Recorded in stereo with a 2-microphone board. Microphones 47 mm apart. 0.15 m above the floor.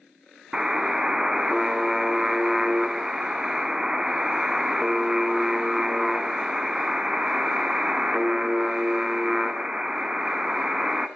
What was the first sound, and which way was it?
A buzzer, 15° right (ahead or behind).